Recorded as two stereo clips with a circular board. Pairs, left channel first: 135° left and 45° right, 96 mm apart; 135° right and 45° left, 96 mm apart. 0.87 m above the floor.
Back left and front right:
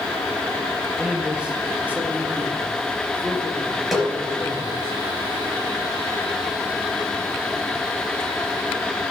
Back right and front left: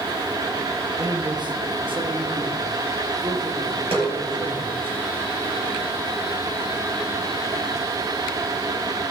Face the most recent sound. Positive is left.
turn(degrees=45)